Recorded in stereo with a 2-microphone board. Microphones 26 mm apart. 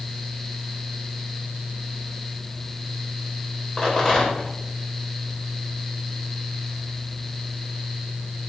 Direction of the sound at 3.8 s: 30° left (ahead or behind).